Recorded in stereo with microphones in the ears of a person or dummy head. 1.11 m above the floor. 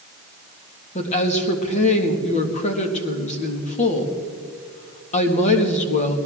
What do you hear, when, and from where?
0.9 s a woman speaking: 40° left (ahead or behind), 1.8 m